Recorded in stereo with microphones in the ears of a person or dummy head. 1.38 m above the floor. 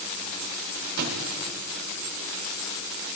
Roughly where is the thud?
Right.